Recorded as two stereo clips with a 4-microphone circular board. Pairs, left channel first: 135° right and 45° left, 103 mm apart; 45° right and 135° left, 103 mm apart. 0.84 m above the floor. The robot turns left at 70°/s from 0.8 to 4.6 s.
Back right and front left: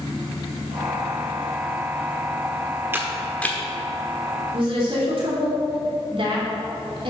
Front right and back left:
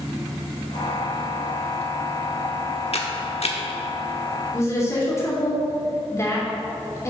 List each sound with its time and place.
2.9 s a camera shutter: 25° right, 1.1 m; by 3.6 s 70° right, 1.1 m
4.5 s a woman speaking: 20° left, 2.5 m; by 7.1 s 15° left, 2.5 m